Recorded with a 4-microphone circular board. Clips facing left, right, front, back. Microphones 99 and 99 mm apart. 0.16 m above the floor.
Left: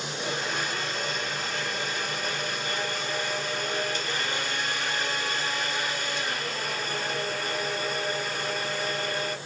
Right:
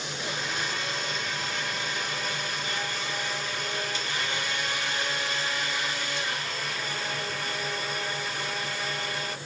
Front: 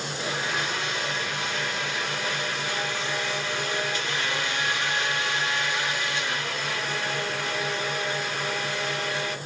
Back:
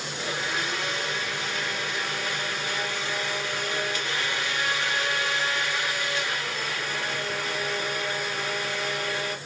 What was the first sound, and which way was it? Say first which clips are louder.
A blender: left 3 dB, even; 60° left.